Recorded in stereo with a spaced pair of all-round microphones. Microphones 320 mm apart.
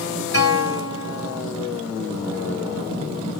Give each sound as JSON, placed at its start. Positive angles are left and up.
{"t": 0.3, "sound": "a guitar", "side_deg": -50, "distance_m": 2.5}